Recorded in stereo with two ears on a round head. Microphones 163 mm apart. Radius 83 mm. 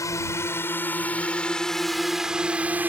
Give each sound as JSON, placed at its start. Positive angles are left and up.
{"t": 0.0, "sound": "a drone", "side_deg": 15}